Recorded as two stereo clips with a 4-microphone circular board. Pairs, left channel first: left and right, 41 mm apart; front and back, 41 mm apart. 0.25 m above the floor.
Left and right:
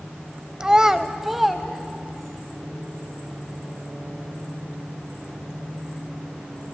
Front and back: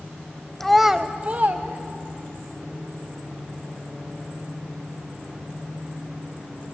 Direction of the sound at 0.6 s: 60° right.